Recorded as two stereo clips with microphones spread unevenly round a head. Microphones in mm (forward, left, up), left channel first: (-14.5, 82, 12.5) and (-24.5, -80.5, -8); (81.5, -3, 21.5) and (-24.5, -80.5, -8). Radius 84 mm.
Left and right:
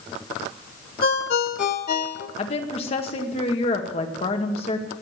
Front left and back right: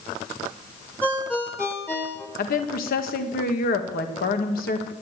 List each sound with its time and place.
1.0 s a ringtone: 115° left, 1.3 m
2.4 s a woman speaking: 30° left, 2 m